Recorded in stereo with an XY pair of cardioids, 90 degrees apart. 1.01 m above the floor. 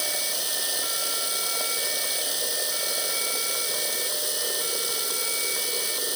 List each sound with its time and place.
0.0 s running water: 5° right